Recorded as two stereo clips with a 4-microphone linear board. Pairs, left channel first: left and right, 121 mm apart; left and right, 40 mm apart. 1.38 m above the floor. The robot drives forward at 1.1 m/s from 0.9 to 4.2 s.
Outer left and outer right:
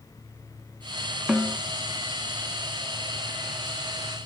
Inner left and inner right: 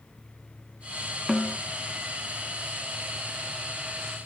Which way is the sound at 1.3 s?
5° right (ahead or behind).